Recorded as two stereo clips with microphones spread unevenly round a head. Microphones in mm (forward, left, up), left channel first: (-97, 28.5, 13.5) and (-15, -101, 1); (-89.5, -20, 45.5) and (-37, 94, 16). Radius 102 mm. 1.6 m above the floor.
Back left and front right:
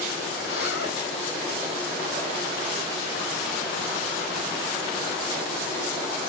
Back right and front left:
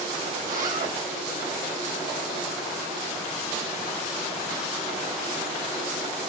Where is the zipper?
85° left, 7 m.